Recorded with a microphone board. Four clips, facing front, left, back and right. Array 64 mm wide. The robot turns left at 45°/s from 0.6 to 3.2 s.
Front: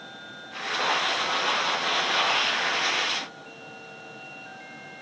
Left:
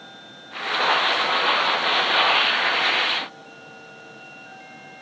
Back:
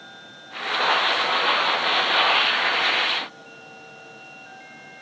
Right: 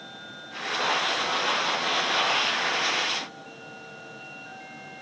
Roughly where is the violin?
I don't hear a violin.